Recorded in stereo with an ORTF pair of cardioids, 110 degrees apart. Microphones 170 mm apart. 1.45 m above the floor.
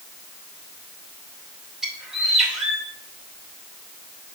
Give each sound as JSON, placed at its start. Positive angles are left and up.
{"t": 1.8, "sound": "a bird", "azimuth_deg": -5, "distance_m": 2.5}